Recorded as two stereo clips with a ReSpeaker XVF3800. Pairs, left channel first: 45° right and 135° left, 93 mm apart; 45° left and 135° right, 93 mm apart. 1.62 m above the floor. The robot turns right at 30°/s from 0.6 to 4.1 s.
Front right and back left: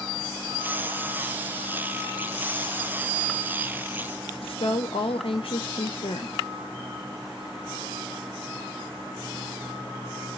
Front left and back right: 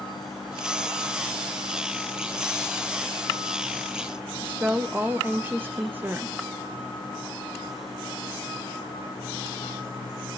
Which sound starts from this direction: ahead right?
A woman speaking, at 4.4 s.